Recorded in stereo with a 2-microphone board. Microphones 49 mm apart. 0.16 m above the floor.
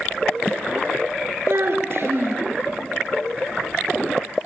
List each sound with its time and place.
1.5 s a child speaking: 55° right (ahead or behind), 1.6 m